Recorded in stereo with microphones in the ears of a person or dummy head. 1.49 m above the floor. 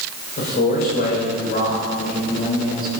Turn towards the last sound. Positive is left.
turn(degrees=45)  # may be behind; listen again after turning